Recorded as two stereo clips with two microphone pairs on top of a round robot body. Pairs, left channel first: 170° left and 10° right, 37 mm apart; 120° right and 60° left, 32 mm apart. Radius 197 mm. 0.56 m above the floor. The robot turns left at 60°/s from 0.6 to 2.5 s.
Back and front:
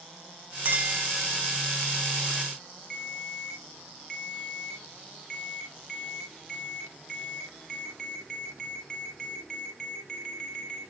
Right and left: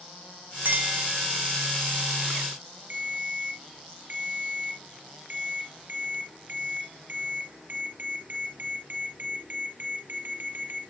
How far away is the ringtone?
About 5 m.